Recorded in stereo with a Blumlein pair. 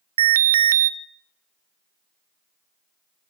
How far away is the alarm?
About 0.7 m.